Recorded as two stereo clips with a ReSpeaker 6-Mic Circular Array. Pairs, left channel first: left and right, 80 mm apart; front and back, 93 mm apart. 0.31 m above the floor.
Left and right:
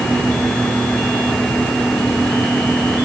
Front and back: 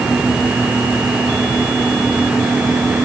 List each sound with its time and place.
Only background noise.